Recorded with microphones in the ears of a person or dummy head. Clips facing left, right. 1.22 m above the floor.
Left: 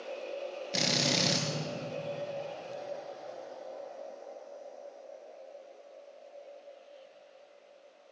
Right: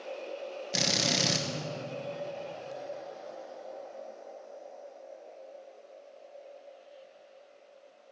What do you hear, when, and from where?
0.7 s a drill: centre (ahead or behind), 0.8 m